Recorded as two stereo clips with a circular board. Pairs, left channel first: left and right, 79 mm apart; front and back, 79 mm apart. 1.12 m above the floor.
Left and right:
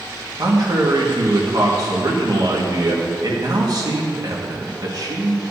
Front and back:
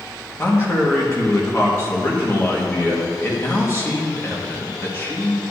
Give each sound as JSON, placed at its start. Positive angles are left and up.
{"t": 0.4, "sound": "a man speaking", "azimuth_deg": -55, "distance_m": 1.7}